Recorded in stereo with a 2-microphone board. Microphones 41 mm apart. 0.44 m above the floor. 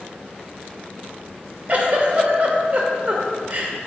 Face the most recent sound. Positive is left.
turn(degrees=-40)  # may be behind; listen again after turning